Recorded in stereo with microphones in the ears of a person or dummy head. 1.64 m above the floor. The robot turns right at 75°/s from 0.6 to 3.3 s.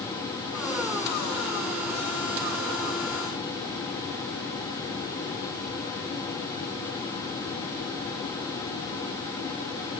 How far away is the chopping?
I don't hear chopping.